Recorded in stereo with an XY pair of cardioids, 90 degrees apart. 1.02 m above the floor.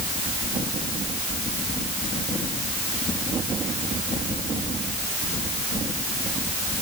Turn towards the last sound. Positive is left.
No sound to turn to.